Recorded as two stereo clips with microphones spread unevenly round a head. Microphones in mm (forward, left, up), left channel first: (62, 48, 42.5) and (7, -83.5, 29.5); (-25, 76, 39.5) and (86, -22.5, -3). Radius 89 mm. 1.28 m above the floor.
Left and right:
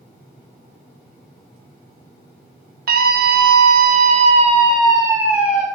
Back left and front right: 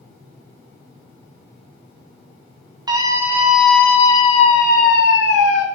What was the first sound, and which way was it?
A scream, 105° right.